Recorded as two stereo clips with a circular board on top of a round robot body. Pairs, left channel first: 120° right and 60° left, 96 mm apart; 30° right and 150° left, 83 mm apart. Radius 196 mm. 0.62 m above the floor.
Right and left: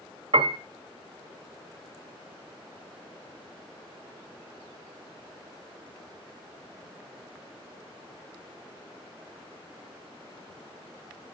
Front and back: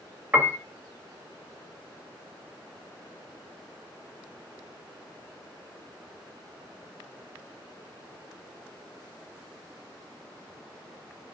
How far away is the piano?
About 1.4 m.